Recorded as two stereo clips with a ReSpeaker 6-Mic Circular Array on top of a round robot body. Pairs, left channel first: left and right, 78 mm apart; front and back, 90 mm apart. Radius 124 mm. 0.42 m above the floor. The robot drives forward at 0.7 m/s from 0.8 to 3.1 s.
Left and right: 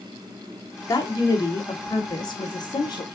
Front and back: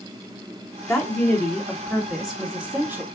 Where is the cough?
No cough in this recording.